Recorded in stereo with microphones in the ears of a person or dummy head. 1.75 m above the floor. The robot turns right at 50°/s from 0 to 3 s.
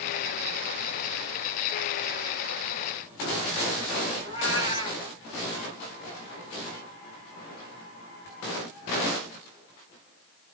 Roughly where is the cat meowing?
Left.